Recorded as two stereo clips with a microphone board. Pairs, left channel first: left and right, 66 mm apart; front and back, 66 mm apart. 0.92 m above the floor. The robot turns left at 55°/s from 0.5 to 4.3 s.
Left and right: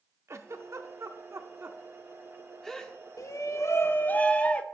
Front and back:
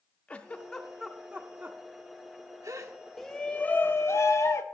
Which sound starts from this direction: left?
A shout, at 3.2 s.